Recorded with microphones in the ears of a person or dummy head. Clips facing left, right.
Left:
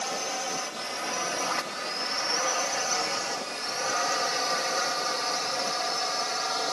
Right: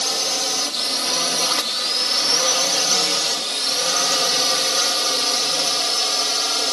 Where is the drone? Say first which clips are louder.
Right 5 dB; 55° right (ahead or behind); by 6.7 s 45° right (ahead or behind).